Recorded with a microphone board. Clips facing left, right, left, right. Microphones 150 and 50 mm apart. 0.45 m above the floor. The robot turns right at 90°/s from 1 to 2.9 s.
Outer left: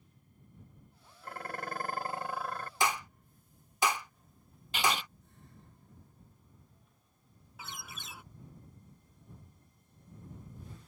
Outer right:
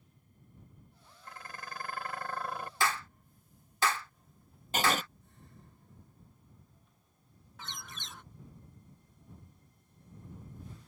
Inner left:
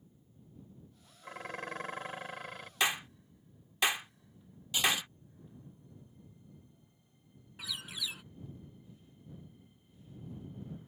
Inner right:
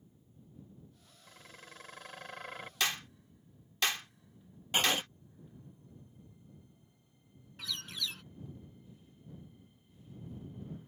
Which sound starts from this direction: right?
Writing, at 4.7 s.